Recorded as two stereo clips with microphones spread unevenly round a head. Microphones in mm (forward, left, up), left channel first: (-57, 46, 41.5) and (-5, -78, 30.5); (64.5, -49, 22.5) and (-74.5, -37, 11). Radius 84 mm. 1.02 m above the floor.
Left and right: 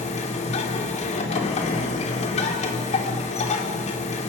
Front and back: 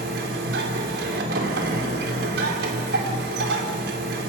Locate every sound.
0.0 s a machine running: 155° left, 2.5 m